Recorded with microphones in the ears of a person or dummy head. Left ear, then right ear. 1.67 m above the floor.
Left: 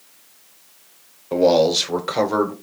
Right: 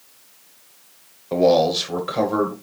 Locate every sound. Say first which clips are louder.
1.3 s a man speaking: left 1 dB; centre (ahead or behind), 0.9 m; by 2.5 s 25° left (ahead or behind), 1.4 m